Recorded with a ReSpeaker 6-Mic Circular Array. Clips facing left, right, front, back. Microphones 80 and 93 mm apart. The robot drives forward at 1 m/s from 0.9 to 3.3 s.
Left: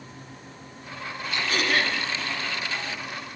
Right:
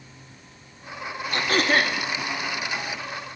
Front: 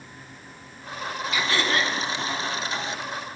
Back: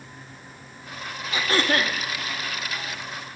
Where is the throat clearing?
120° right, 0.8 m; by 2.0 s 150° right, 1.2 m.